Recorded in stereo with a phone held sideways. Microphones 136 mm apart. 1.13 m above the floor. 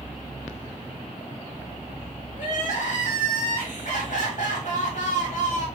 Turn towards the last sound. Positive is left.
turn(degrees=65)  # may be behind; listen again after turning